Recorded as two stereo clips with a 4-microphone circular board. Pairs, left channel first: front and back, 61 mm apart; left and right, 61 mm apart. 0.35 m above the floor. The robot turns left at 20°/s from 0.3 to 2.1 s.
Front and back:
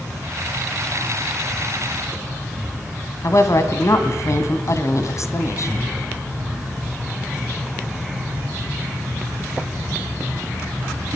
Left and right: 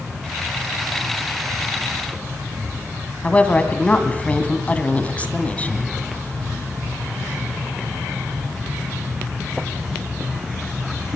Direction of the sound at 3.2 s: 25° left.